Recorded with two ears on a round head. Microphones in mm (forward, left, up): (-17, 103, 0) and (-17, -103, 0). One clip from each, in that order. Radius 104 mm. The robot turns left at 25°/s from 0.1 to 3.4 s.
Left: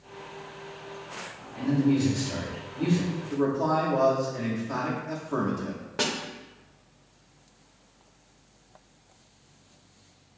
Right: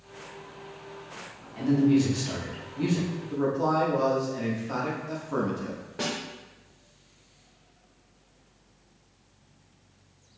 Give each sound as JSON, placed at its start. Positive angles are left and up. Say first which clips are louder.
{"t": 1.6, "sound": "a man speaking", "louder": "right 2 dB", "azimuth_deg": -50, "distance_m": 1.3}
{"t": 3.3, "sound": "a man speaking", "louder": "even", "side_deg": -10, "distance_m": 0.6}
{"t": 6.0, "sound": "a snare drum", "louder": "left 3 dB", "side_deg": 40, "distance_m": 0.6}